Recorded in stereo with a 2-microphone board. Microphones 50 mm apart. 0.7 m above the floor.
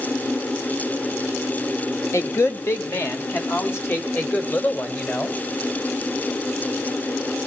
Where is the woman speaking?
60° left (ahead or behind), 1.6 m; by 5.4 s 40° left (ahead or behind), 3.5 m.